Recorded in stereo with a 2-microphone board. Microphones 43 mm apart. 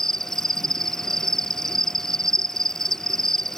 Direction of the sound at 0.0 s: 10° left (ahead or behind).